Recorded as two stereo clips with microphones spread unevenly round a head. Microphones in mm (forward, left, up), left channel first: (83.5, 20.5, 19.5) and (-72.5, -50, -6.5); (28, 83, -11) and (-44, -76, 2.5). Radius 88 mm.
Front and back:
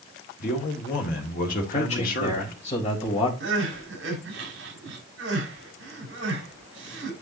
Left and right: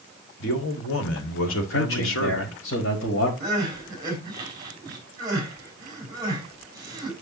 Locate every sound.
0.4 s a man speaking: 70° left, 2 m
1.7 s a man speaking: 80° left, 4 m
3.4 s crying: 175° left, 4.5 m